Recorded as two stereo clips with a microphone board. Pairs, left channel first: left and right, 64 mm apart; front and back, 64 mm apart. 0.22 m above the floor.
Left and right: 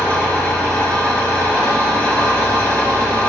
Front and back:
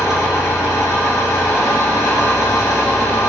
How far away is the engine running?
About 2 m.